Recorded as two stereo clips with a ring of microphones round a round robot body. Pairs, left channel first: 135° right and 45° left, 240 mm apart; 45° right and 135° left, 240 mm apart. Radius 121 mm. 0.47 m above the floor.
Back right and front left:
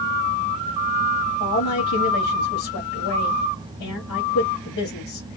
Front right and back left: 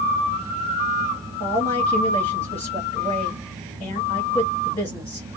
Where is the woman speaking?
110° right, 2 m.